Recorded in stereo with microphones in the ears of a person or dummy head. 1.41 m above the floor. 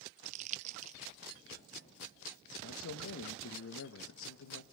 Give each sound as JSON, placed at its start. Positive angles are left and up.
{"t": 0.2, "sound": "crumpling", "side_deg": -45, "distance_m": 0.7}
{"t": 2.6, "sound": "a man speaking", "side_deg": 80, "distance_m": 1.5}